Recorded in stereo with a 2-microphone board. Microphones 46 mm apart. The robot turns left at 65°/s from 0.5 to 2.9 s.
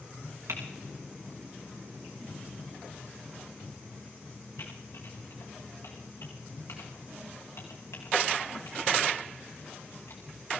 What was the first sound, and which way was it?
Typing on a keyboard, 80° right.